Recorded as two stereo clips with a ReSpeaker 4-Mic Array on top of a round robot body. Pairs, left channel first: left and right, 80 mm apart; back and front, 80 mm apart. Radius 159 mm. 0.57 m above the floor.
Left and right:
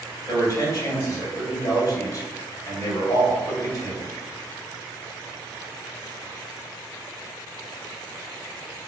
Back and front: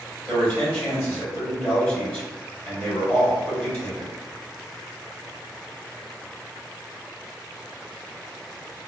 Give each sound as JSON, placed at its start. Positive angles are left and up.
{"t": 0.3, "sound": "a man speaking", "azimuth_deg": 125, "distance_m": 1.9}